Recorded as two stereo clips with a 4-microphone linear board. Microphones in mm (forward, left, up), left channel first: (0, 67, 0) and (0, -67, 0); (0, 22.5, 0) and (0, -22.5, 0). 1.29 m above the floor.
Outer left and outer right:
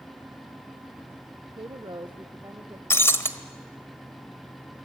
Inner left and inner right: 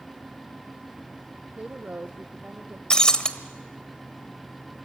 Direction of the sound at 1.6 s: 40° right (ahead or behind).